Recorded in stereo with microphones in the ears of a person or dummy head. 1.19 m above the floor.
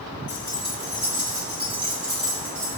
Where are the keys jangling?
10° right (ahead or behind), 1.0 m; by 2.8 s 60° right (ahead or behind), 3 m.